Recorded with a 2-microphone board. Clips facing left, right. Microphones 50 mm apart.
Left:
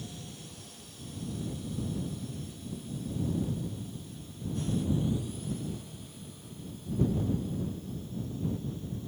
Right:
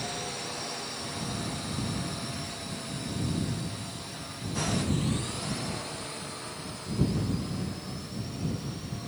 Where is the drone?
85° right; by 9.1 s 75° right (ahead or behind).